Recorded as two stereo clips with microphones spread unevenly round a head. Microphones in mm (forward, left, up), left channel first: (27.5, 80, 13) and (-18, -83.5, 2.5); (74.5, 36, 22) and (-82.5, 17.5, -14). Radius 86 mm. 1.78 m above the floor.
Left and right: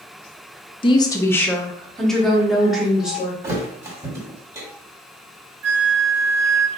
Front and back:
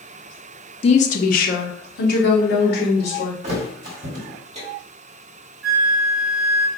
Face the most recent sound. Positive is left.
turn(degrees=-130)